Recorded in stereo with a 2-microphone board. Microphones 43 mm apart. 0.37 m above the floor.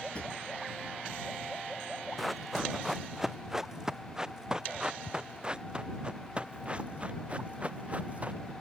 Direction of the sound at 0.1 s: 30° left (ahead or behind).